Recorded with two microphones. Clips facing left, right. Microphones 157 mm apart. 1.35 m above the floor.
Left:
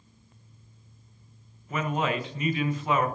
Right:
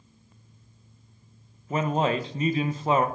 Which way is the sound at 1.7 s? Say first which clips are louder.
Right 4 dB; 35° right (ahead or behind).